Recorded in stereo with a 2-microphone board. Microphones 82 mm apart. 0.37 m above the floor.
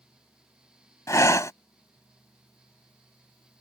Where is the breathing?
40° left (ahead or behind).